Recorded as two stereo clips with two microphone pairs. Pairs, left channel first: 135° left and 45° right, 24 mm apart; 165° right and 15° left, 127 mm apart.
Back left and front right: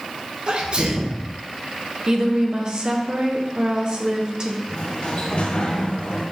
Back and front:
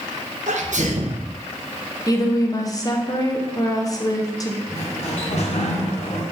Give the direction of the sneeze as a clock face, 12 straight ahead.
12 o'clock.